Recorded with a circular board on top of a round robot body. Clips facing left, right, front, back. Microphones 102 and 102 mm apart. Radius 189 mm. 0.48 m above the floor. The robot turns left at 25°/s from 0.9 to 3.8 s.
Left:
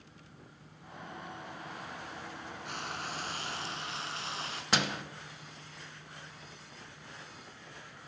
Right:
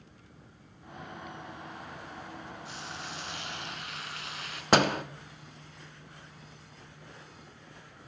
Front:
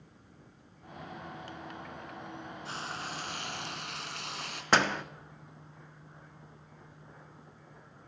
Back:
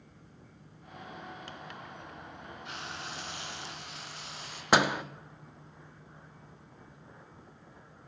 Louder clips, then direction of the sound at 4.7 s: Right 9 dB, back 2 dB; 105° right.